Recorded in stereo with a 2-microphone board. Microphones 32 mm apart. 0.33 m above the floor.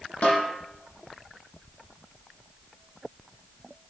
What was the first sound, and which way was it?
A snare drum, 50° left (ahead or behind).